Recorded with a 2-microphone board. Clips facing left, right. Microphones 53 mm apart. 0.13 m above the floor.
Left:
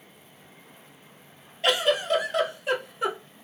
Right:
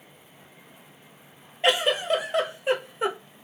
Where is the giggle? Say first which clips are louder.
Even; 25° right (ahead or behind), 0.8 m.